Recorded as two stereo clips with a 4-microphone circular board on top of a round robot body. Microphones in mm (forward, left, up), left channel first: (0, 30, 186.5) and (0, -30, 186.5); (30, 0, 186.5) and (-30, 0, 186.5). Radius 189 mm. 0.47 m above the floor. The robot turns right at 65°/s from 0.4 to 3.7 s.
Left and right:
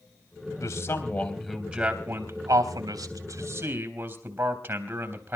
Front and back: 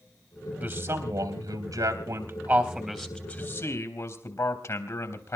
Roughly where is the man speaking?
Behind left.